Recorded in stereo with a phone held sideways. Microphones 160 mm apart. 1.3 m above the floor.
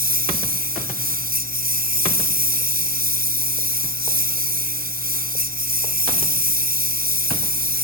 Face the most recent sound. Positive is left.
turn(degrees=-65)  # may be behind; listen again after turning